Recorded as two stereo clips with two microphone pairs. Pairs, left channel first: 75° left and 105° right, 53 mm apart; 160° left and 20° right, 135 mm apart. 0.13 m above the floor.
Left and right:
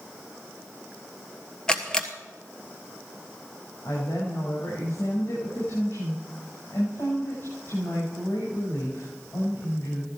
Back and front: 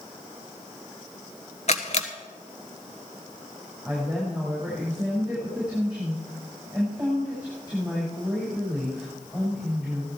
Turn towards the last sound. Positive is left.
turn(degrees=65)